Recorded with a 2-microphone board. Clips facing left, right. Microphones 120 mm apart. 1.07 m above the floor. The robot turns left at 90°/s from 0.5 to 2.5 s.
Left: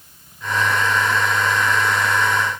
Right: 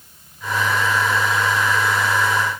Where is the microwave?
No microwave in this recording.